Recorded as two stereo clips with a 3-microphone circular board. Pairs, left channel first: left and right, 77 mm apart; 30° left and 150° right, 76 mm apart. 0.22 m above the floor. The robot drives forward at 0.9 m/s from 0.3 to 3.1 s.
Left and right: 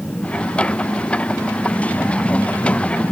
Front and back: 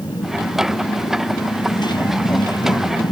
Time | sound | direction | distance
0.0 | a motorcycle | 20° left | ?